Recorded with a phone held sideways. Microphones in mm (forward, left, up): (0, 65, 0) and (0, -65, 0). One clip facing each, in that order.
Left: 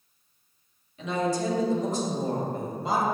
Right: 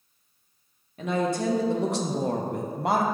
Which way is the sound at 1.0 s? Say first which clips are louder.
Right 1 dB; 50° right (ahead or behind).